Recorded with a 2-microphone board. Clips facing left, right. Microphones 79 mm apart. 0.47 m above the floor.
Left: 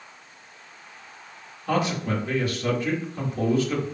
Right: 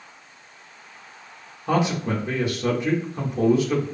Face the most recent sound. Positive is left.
turn(degrees=-20)  # may be behind; listen again after turning